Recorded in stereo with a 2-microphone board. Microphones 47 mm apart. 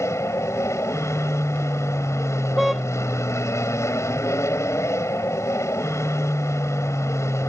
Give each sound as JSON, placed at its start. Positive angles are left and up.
{"t": 0.0, "sound": "an aircraft", "side_deg": 70}
{"t": 2.6, "sound": "a car horn", "side_deg": 0}